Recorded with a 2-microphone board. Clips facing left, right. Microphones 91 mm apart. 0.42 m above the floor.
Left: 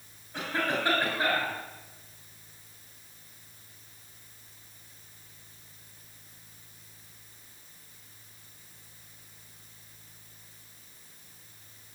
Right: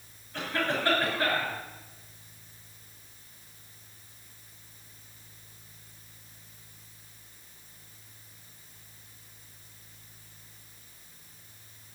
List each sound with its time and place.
0.3 s a cough: 15° left (ahead or behind), 5.5 m